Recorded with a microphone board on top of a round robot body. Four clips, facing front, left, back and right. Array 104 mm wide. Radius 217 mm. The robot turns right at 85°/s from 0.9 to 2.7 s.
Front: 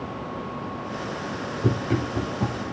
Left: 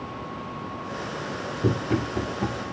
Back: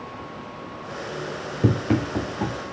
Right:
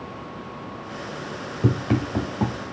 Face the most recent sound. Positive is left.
turn(degrees=-70)